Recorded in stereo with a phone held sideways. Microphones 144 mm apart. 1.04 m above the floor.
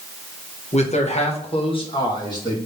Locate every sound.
0.7 s a man speaking: 50° left (ahead or behind), 1.1 m; by 2.6 s 30° left (ahead or behind), 2 m